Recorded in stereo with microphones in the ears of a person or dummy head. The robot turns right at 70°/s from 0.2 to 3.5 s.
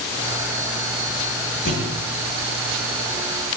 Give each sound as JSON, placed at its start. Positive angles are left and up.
{"t": 1.6, "sound": "a thud", "side_deg": 50, "distance_m": 9.5}